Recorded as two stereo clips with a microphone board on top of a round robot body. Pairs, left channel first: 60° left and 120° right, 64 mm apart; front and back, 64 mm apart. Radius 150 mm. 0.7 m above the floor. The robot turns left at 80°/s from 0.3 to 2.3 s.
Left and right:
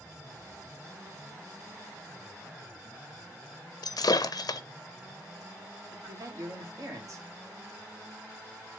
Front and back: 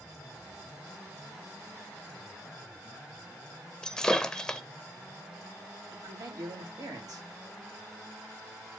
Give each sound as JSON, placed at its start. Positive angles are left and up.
{"t": 3.8, "sound": "breaking glass", "azimuth_deg": 80, "distance_m": 0.6}
{"t": 5.9, "sound": "a man speaking", "azimuth_deg": -155, "distance_m": 2.0}